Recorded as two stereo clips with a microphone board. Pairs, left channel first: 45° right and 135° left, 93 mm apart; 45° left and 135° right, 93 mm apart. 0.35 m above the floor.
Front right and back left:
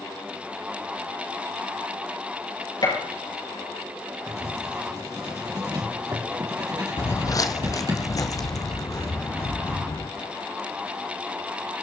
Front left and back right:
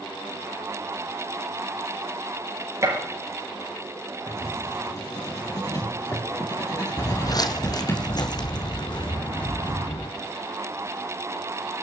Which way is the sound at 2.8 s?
80° right.